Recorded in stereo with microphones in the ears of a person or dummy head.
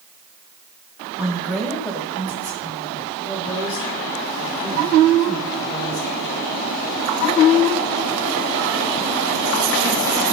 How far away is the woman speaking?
About 1.9 m.